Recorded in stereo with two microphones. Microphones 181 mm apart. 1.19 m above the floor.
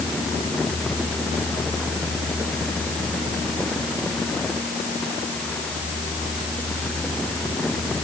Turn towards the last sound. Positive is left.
No sound to turn to.